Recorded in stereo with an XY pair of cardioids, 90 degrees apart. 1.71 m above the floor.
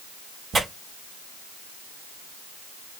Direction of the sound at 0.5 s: 40° right.